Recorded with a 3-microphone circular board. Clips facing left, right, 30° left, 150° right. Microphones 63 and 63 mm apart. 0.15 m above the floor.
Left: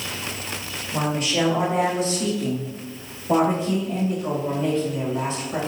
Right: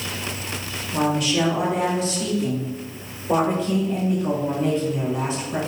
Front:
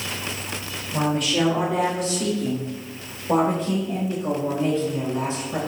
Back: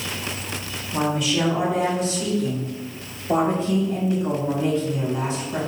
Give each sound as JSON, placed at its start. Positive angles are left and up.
{"t": 0.9, "sound": "a woman speaking", "azimuth_deg": 50, "distance_m": 2.0}